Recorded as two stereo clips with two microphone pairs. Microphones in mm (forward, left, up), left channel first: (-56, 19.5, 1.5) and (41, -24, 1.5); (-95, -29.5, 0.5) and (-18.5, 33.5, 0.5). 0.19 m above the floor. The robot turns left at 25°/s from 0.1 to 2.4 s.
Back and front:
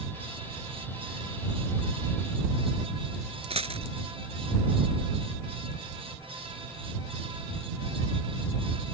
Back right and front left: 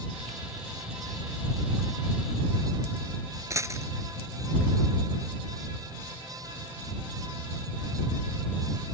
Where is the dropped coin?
20° right.